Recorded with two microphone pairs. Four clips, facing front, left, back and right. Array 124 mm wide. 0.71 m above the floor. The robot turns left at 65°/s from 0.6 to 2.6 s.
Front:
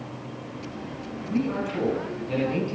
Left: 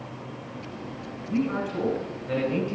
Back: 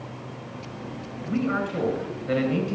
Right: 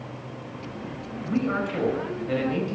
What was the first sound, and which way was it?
A man speaking, 110° right.